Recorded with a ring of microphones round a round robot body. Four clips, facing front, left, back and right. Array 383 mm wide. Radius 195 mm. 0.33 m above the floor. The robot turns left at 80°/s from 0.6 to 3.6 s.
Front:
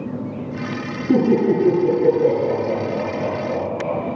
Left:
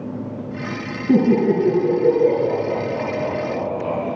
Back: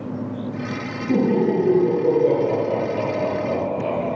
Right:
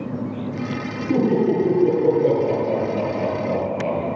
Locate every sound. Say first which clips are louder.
1.1 s laughter: left 3 dB, front 3 dB; 80° left, 6.5 m; by 4.0 s 120° right, 6.5 m